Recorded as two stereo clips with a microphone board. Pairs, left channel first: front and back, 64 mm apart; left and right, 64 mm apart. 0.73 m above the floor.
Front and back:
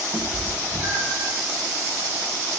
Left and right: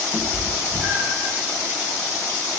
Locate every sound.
0.1 s a cat meowing: 150° left, 0.5 m; by 1.3 s 150° right, 0.8 m